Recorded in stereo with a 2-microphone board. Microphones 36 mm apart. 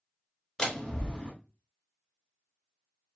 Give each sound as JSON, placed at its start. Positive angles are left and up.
{"t": 0.6, "sound": "a door slam", "side_deg": 20, "distance_m": 1.4}